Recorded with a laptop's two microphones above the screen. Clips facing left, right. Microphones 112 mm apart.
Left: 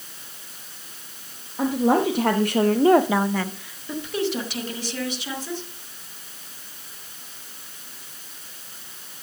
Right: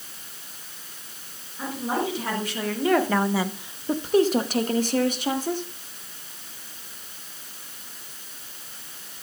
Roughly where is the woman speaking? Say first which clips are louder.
Left 8 dB; left.